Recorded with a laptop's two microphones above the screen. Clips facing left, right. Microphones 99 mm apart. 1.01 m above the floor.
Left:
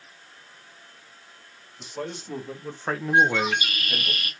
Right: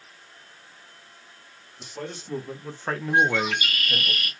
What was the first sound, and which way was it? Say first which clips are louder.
A man speaking: left 2 dB; centre (ahead or behind).